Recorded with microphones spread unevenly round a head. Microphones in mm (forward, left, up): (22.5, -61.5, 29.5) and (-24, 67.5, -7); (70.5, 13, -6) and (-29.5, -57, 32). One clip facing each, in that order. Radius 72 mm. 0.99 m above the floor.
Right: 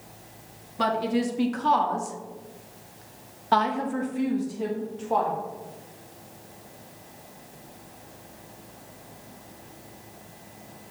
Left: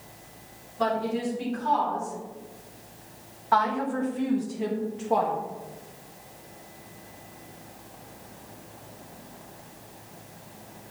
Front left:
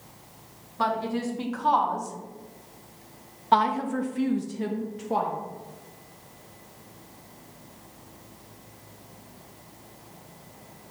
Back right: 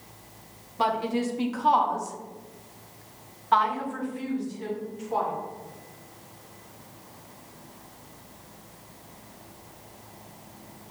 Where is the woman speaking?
70° right, 1.6 m; by 5.3 s 40° left, 1.3 m.